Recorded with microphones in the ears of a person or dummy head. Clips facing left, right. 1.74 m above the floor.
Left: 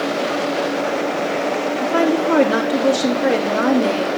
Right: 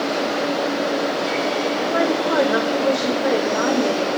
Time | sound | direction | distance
1.8 | a woman speaking | 45° left (ahead or behind) | 3 m